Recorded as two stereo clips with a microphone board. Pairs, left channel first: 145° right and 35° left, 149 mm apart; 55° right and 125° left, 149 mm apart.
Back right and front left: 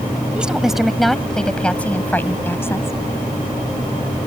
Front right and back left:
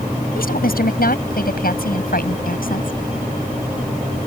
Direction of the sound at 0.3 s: 50° right.